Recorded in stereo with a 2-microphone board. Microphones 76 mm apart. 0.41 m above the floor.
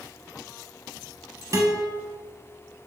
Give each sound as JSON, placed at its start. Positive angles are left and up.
{"t": 1.5, "sound": "a guitar", "side_deg": -40, "distance_m": 1.0}